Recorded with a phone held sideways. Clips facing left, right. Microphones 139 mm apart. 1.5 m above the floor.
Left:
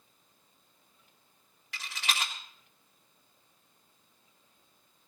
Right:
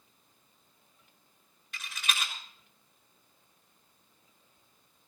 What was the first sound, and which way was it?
A rattle, 85° left.